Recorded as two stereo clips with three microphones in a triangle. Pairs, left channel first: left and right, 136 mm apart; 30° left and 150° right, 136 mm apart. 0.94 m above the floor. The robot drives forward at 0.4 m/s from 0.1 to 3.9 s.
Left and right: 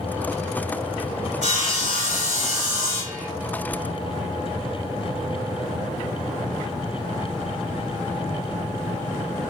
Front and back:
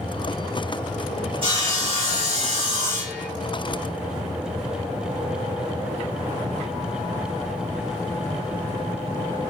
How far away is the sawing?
About 1.4 m.